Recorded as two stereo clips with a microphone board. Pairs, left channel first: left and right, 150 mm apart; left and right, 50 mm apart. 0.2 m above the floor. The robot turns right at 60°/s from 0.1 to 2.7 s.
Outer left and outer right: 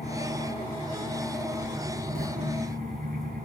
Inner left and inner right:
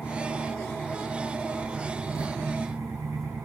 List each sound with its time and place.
0.0 s an engine running: 105° left, 6 m; by 3.5 s 100° right, 6 m
1.6 s writing: 55° right (ahead or behind), 10 m; by 2.3 s 85° right, 10 m